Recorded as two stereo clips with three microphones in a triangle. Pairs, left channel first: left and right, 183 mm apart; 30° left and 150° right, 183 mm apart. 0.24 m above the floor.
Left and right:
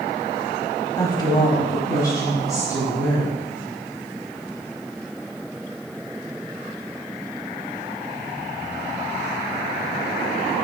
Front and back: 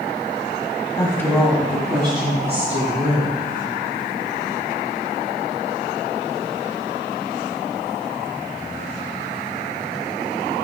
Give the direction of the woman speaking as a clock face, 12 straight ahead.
10 o'clock.